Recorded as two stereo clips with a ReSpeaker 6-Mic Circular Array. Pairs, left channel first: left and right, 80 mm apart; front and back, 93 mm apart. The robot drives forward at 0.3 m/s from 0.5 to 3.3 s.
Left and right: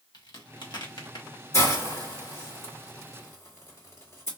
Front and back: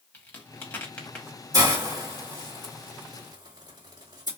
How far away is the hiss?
About 2.0 m.